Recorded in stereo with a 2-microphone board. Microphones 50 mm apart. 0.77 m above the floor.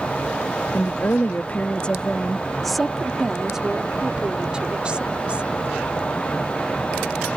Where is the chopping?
I don't hear chopping.